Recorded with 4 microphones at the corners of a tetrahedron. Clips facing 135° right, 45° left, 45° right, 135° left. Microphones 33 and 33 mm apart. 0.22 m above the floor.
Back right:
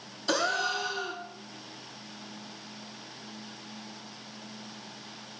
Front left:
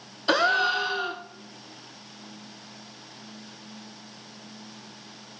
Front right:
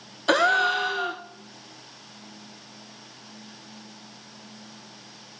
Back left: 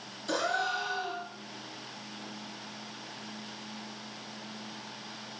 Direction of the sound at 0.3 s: 10° right.